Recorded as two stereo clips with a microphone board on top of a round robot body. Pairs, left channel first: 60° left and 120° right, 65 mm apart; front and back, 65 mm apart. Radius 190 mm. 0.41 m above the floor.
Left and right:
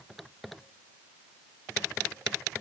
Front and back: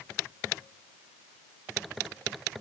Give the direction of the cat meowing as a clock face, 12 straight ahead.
I don't hear a cat meowing.